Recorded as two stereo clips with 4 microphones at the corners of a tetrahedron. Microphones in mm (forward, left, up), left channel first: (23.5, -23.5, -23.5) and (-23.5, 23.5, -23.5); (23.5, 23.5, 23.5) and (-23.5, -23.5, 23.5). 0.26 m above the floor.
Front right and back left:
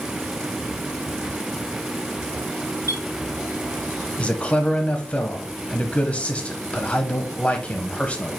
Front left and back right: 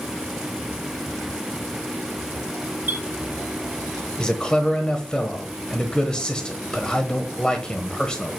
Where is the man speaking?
15° right, 1.0 m.